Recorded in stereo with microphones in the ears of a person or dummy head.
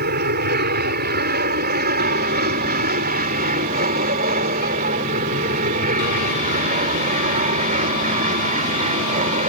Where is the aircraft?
55° right (ahead or behind); by 9.5 s 45° right (ahead or behind).